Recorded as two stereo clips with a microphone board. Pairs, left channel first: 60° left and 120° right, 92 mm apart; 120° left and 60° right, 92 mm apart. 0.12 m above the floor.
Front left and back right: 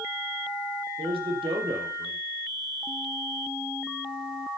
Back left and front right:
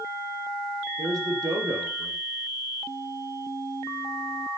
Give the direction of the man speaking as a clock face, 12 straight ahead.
4 o'clock.